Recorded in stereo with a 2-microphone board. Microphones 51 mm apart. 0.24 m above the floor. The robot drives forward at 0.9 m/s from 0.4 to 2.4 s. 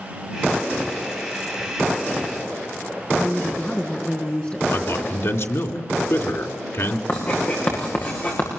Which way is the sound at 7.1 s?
35° left (ahead or behind).